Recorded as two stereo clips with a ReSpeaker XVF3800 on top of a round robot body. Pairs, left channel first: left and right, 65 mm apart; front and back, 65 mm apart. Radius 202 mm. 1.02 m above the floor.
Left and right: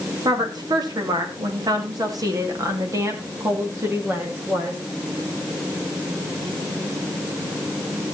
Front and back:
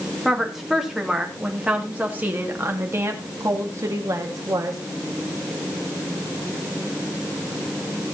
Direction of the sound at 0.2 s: 95° right.